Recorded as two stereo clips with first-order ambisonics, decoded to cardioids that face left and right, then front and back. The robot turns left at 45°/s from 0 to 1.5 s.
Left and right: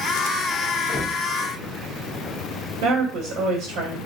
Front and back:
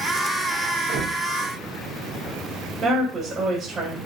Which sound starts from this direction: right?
A woman speaking, at 2.8 s.